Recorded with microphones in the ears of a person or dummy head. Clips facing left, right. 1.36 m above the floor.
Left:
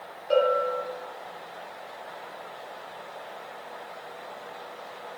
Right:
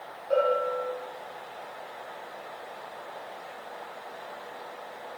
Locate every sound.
0.3 s a bell: 50° left (ahead or behind), 4 m